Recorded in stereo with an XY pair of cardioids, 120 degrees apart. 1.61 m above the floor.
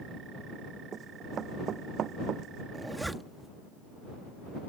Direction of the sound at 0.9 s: 45° right.